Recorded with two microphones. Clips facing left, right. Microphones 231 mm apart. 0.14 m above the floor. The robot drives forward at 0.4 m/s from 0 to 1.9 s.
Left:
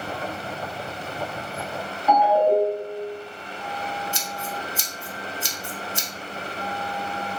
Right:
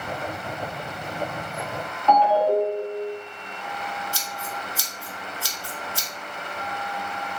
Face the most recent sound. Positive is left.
turn(degrees=20)  # may be behind; listen again after turning